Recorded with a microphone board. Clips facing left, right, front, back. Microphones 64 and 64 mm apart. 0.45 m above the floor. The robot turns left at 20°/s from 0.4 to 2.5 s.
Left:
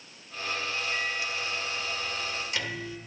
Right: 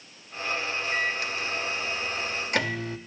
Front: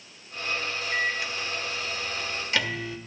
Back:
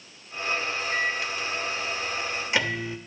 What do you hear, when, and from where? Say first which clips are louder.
0.9 s a microwave: right 3 dB, front 1 dB; 80° right, 0.8 m; by 3.0 s 115° right, 0.8 m